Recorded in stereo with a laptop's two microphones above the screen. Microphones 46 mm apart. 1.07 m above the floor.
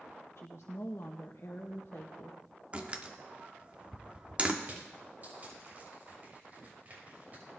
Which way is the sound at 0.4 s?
70° left (ahead or behind).